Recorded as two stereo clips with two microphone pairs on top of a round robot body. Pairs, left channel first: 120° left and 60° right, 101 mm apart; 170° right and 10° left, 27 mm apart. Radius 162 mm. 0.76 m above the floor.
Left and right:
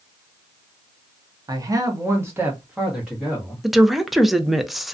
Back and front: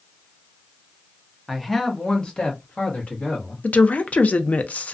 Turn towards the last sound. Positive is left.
turn(degrees=-155)